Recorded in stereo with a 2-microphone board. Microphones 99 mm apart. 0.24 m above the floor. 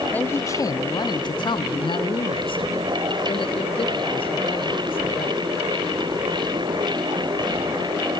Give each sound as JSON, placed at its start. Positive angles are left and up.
{"t": 0.1, "sound": "a man speaking", "side_deg": 15, "distance_m": 1.0}